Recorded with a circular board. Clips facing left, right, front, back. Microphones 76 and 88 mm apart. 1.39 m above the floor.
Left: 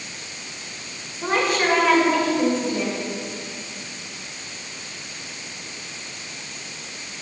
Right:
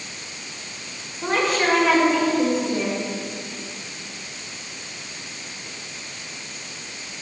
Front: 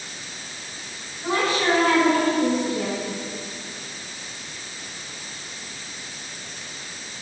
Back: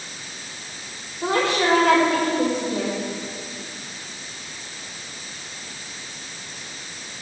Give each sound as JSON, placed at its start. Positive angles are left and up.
{"t": 1.2, "sound": "a woman speaking", "azimuth_deg": 180, "distance_m": 6.5}